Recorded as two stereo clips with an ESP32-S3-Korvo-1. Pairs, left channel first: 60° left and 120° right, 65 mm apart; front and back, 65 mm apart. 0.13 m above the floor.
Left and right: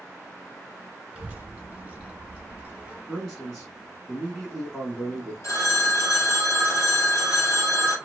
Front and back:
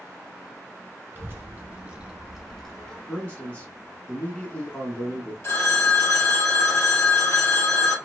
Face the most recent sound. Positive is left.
turn(degrees=35)